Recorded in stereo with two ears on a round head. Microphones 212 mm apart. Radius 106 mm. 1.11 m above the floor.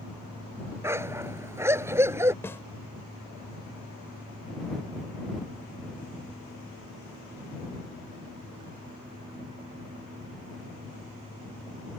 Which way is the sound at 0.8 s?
10° right (ahead or behind).